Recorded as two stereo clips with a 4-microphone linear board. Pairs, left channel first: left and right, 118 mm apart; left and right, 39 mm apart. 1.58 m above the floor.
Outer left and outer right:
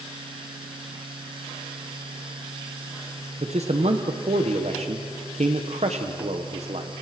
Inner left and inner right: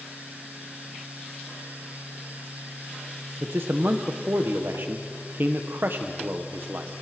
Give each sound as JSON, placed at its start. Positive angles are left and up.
{"t": 3.4, "sound": "a man speaking", "side_deg": -65, "distance_m": 1.3}